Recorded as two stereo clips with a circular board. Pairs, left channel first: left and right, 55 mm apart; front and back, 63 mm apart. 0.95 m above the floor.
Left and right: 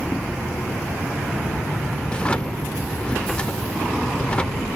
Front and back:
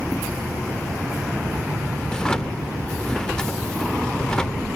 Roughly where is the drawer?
Ahead left.